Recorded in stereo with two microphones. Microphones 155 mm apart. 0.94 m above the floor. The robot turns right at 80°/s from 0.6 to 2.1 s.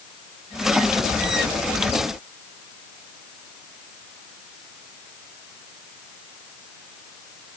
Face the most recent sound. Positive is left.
No sound to turn to.